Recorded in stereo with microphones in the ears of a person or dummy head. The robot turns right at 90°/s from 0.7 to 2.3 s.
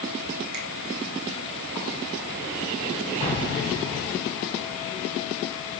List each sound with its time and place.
0.5 s a finger snap: 80° right, 2.5 m
3.2 s an explosion: 35° left (ahead or behind), 5.5 m